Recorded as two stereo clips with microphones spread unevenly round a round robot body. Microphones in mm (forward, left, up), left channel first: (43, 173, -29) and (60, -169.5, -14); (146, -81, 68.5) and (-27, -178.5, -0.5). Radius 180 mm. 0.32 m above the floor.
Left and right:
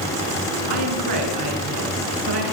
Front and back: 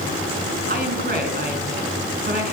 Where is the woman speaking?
115° right, 3 m.